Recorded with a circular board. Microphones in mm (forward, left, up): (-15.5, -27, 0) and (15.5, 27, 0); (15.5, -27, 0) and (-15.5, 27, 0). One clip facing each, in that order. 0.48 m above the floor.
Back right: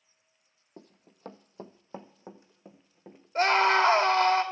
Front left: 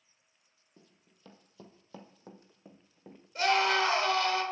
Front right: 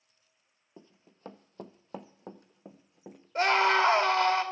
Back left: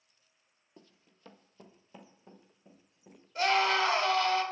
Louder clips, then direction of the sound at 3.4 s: Back right 4 dB, front right 3 dB; 85° right.